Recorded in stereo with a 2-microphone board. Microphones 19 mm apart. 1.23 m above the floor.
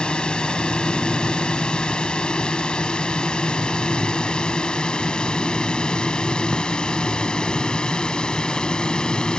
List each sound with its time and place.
0.0 s a drone: 55° left (ahead or behind); by 9.4 s 50° left (ahead or behind)